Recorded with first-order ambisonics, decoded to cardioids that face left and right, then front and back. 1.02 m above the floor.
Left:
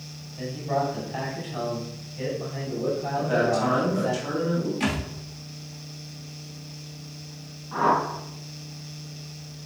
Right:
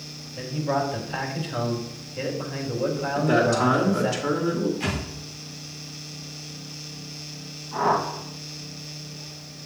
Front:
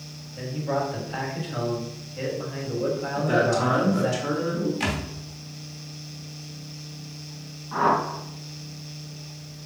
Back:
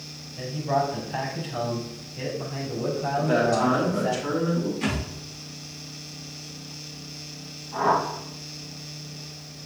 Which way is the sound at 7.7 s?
25° left.